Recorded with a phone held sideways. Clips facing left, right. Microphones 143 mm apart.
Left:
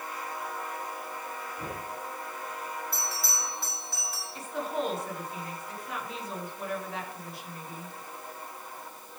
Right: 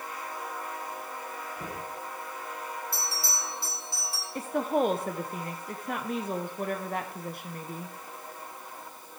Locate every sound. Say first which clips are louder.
1.6 s knocking: even; 55° right (ahead or behind), 7 m
2.9 s a bell: even; 30° right (ahead or behind), 8 m
4.3 s a woman speaking: right 6 dB; 55° right (ahead or behind), 0.8 m